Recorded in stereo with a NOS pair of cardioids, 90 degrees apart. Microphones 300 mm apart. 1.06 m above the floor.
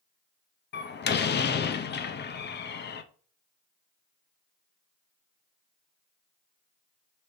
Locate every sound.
0.7 s a door slam: 35° left, 0.6 m